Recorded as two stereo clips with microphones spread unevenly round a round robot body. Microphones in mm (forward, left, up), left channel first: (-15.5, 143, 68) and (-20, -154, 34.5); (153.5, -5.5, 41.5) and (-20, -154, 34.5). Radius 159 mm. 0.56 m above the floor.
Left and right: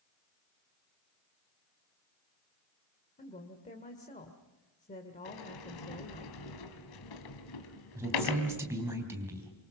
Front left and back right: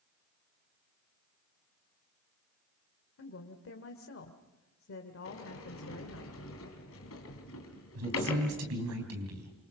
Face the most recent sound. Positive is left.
turn(degrees=-170)